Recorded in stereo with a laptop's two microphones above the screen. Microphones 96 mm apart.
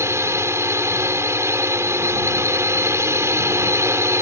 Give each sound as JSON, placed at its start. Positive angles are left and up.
{"t": 0.0, "sound": "a drone", "side_deg": -30}